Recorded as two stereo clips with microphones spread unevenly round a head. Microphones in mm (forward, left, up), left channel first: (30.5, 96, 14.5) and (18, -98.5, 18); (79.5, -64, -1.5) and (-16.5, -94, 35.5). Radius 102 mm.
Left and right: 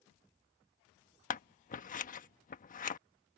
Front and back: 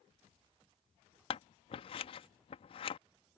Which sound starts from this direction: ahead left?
Scissors, at 1.3 s.